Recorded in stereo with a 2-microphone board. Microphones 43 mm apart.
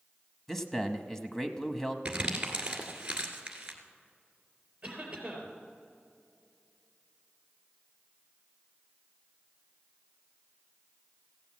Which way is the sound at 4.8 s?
15° right (ahead or behind).